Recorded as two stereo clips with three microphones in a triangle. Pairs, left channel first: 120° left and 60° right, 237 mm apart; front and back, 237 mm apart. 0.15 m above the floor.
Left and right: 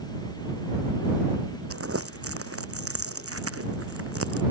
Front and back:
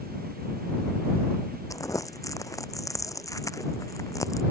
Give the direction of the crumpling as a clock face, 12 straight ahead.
3 o'clock.